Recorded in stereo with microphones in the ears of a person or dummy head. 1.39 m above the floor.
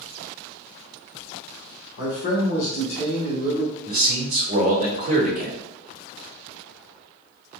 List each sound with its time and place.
2.0 s a man speaking: 75° left (ahead or behind), 1.1 m
3.9 s a man speaking: 45° right (ahead or behind), 1.2 m